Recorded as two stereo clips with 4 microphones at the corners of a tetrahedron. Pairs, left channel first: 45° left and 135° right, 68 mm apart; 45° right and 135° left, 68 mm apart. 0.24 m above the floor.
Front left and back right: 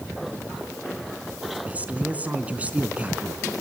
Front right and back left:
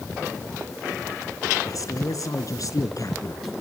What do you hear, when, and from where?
1.7 s a man speaking: 70° right, 3.5 m